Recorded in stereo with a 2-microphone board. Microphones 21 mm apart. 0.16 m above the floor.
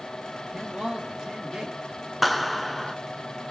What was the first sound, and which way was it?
A man speaking, 40° right (ahead or behind).